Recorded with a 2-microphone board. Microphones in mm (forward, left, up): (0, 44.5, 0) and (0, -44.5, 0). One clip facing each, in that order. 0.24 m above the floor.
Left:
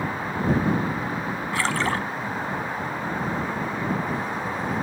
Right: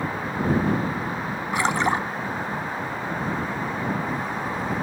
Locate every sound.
1.5 s a splash: 20° right (ahead or behind)